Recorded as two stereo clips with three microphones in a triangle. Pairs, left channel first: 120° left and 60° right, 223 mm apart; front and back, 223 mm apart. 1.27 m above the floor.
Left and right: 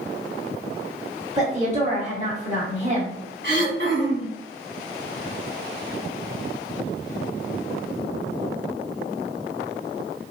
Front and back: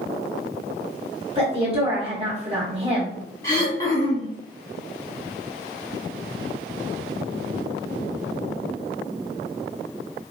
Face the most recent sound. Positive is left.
turn(degrees=-70)